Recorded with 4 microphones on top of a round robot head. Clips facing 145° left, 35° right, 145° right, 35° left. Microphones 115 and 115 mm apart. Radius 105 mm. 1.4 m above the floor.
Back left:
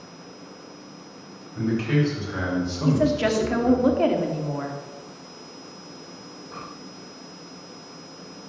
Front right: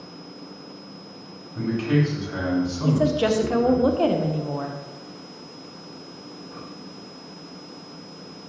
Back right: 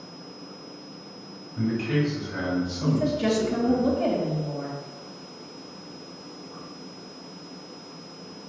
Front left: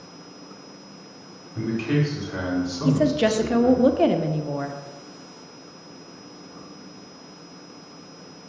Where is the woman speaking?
40° left, 0.8 m.